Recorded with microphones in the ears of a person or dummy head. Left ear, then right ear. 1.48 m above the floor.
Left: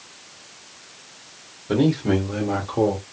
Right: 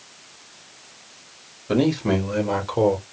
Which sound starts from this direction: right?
A man speaking, at 1.7 s.